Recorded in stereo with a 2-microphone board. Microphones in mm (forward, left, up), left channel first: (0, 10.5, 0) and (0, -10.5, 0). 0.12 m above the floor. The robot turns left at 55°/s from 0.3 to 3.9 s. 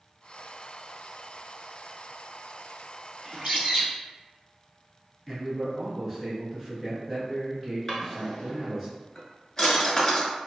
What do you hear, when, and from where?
3.2 s a bird: 65° right, 0.9 m; by 3.9 s 105° right, 0.9 m
5.3 s a man speaking: 5° right (ahead or behind), 1.4 m
7.9 s a drawer: 20° left (ahead or behind), 0.9 m